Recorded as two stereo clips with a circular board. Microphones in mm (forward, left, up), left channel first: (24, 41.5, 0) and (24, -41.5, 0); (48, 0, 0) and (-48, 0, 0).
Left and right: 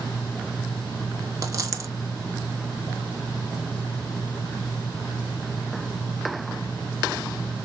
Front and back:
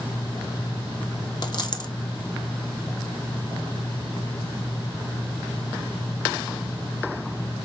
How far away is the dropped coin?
About 0.6 m.